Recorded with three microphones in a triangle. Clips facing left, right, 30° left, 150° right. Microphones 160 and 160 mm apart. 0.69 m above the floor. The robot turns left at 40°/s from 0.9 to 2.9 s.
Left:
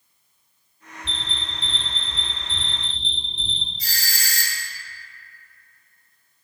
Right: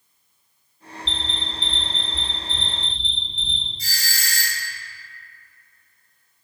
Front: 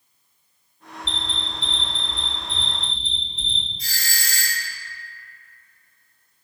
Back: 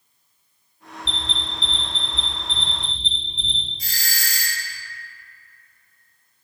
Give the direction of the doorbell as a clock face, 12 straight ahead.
5 o'clock.